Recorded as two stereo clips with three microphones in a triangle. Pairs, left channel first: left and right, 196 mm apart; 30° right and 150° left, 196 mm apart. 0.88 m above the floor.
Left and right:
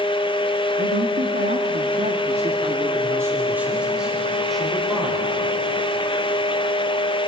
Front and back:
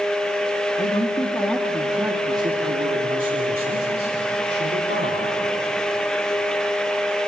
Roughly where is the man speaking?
Right.